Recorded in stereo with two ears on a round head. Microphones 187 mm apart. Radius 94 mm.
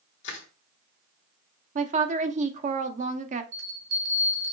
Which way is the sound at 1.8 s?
35° right (ahead or behind).